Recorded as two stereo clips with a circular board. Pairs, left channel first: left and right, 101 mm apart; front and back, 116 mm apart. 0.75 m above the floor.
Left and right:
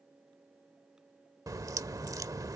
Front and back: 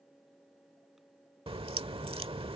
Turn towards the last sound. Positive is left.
turn(degrees=-145)